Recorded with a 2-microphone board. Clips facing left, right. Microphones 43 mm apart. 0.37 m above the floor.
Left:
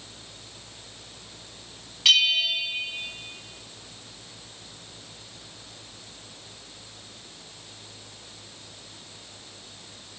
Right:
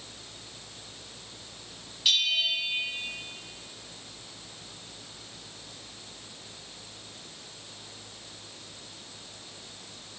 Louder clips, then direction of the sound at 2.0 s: Left 6 dB; 85° left.